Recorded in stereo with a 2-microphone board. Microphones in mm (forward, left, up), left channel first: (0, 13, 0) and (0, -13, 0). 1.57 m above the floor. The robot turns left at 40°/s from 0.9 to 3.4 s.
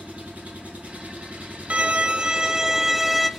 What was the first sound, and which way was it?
An engine running, 75° right.